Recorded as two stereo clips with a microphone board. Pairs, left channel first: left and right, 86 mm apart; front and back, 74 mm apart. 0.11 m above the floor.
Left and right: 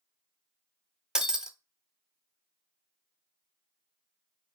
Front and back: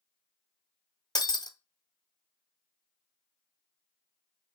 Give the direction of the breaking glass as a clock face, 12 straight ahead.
12 o'clock.